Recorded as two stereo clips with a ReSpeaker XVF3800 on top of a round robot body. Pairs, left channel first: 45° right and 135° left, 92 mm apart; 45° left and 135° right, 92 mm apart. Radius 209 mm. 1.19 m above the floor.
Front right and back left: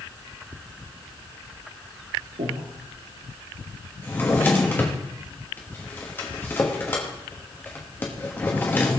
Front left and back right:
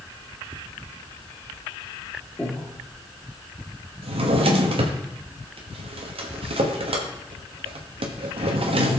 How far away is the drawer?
About 1.1 m.